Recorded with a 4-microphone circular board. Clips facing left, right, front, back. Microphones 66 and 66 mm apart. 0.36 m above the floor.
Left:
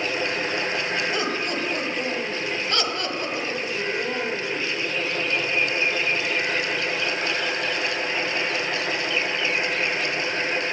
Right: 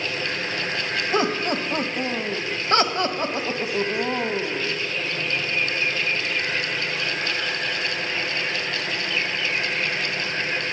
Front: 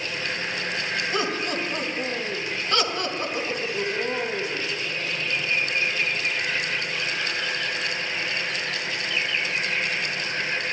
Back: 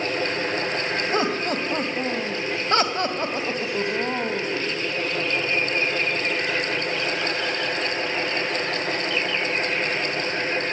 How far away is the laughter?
About 2 m.